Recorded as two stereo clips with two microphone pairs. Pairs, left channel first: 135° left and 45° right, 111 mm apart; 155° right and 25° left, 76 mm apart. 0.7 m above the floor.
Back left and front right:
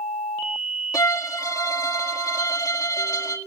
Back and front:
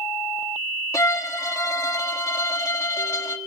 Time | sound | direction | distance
0.9 | a violin | straight behind | 1.4 m